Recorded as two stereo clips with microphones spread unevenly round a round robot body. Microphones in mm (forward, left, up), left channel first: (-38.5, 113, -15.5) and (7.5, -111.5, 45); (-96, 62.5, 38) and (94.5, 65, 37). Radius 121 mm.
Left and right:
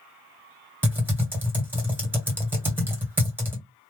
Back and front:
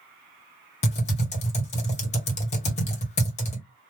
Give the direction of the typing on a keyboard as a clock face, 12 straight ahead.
6 o'clock.